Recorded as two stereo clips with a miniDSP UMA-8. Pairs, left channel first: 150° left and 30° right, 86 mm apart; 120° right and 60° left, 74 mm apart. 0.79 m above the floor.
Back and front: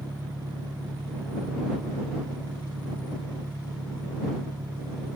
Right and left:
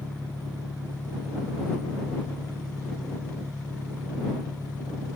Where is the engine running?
40° right.